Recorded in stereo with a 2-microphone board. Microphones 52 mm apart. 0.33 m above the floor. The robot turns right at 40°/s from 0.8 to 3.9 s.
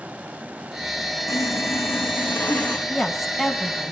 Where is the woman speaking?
165° left, 2 m; by 3.9 s 155° right, 2 m.